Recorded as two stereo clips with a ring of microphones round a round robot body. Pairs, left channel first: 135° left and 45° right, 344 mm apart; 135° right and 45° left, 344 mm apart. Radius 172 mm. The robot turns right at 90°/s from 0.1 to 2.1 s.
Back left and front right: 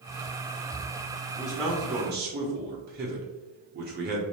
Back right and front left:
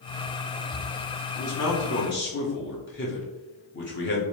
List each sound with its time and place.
1.4 s a man speaking: 160° right, 0.8 m; by 4.2 s 95° right, 0.8 m